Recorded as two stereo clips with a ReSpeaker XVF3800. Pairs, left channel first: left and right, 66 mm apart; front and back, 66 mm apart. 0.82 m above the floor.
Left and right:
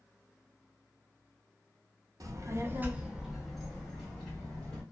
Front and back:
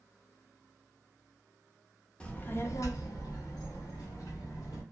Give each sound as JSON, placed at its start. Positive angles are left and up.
{"t": 2.2, "sound": "a child speaking", "azimuth_deg": -75, "distance_m": 0.5}